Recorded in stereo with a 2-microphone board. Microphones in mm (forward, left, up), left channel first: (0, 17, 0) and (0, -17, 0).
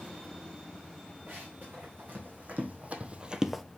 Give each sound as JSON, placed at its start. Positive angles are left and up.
{"t": 1.3, "sound": "running footsteps", "side_deg": -60, "distance_m": 4.0}